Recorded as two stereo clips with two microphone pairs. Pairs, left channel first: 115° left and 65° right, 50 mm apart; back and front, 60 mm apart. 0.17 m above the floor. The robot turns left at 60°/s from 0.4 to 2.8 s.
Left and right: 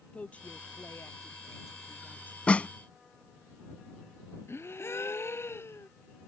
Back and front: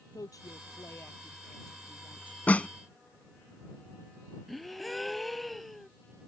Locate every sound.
0.1 s a woman speaking: 175° left; by 2.4 s 60° left
2.5 s a snare drum: 150° left; by 2.7 s 135° left
4.5 s a gasp: 90° left